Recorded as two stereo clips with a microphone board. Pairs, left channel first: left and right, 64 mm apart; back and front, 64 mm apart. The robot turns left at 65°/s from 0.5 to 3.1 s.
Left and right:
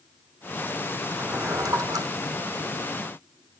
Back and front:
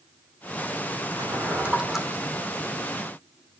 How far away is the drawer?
About 5 m.